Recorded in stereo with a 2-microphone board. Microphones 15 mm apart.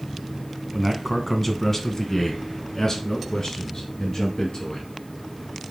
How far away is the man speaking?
About 1.2 m.